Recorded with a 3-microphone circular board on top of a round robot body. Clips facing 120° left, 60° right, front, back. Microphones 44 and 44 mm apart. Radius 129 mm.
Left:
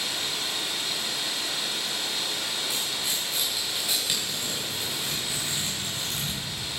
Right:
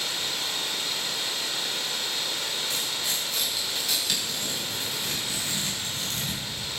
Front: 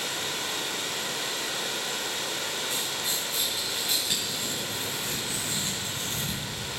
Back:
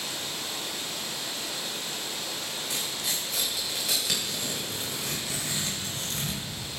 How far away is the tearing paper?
About 3.5 m.